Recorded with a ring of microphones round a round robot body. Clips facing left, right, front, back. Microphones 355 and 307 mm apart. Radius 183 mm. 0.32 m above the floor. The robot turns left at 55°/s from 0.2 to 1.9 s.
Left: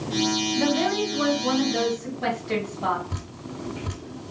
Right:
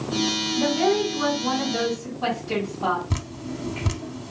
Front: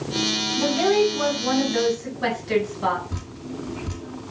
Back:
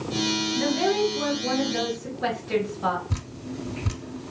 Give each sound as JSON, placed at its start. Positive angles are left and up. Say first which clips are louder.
{"t": 0.6, "sound": "a woman speaking", "louder": "right 4 dB, front 5 dB", "azimuth_deg": 60, "distance_m": 3.0}
{"t": 3.1, "sound": "dripping", "louder": "right 5 dB, front 1 dB", "azimuth_deg": -130, "distance_m": 0.7}